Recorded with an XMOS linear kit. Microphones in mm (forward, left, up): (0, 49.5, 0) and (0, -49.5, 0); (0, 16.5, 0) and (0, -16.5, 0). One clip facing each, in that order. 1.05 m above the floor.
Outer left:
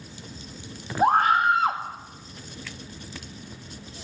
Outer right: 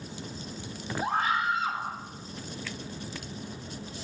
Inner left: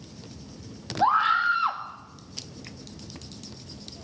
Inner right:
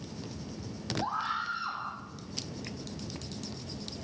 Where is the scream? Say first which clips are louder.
Outer left 9 dB, inner left 13 dB; 55° left (ahead or behind), 2.0 m.